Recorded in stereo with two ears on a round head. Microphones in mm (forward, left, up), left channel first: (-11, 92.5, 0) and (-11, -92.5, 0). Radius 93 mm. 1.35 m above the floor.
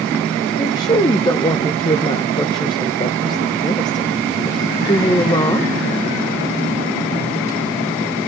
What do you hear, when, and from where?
0.6 s a woman speaking: 20° left (ahead or behind), 0.9 m